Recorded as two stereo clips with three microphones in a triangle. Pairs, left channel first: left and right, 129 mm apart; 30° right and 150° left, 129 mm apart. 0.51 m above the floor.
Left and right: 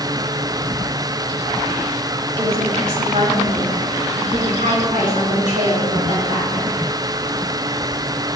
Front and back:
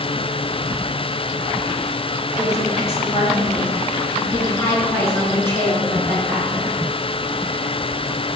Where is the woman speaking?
50° right, 2 m; by 6.7 s 105° right, 7 m.